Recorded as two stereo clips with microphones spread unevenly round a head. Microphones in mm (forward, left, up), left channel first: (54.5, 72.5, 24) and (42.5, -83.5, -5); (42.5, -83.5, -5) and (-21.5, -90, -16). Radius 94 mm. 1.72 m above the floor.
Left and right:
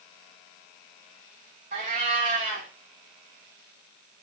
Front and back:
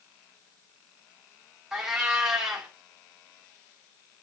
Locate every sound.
1.7 s a cat meowing: 85° right, 1.5 m